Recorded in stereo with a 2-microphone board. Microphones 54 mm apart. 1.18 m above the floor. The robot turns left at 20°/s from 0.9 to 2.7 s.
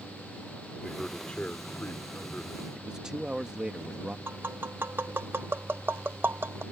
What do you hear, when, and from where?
0.8 s a man speaking: 170° left; by 2.8 s 135° left
2.8 s a man speaking: 15° right (ahead or behind)
4.3 s tapping: 40° right (ahead or behind)